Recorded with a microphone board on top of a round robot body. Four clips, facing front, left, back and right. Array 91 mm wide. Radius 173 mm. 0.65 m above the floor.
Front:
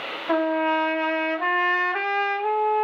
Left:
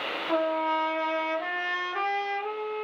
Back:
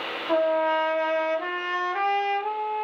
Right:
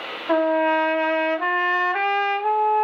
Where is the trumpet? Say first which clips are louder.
Right 8 dB, even; 60° right, 1.6 m.